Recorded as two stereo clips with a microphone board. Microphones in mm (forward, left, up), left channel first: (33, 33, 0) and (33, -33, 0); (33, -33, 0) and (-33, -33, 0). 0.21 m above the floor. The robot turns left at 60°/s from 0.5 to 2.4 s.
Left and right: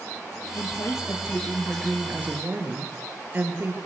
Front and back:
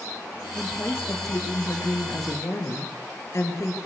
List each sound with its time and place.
0.6 s a woman speaking: 75° left, 4.5 m; by 3.8 s 35° right, 4.5 m